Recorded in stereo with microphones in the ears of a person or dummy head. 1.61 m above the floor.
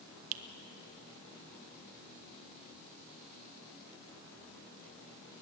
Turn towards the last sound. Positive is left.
turn(degrees=-70)  # may be behind; listen again after turning